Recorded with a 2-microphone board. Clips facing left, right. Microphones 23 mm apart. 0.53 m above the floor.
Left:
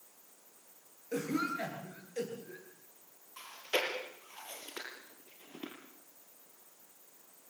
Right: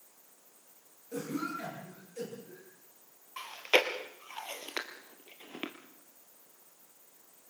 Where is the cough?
50° left (ahead or behind), 8.5 m.